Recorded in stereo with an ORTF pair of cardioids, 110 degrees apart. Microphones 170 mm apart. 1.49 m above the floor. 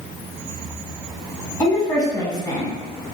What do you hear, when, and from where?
1.6 s a woman speaking: 20° left, 1.1 m